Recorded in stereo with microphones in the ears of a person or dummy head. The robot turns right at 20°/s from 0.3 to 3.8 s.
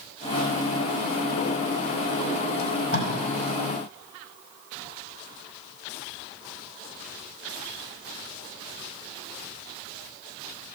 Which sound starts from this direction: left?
Tape being pulled, at 2.6 s.